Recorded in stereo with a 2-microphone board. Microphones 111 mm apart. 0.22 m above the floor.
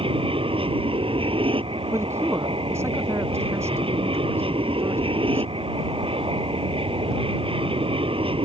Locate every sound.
0.0 s an aircraft: 55° right (ahead or behind)
1.9 s a man speaking: 25° right (ahead or behind)